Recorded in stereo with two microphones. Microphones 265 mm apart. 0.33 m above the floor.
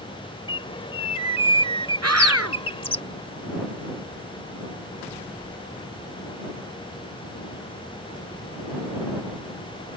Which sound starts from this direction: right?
A scream, at 2.0 s.